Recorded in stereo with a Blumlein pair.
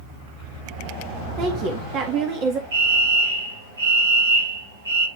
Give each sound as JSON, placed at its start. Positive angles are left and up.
{"t": 1.4, "sound": "a woman speaking", "azimuth_deg": -35, "distance_m": 1.7}
{"t": 2.7, "sound": "a fire alarm", "azimuth_deg": -65, "distance_m": 5.5}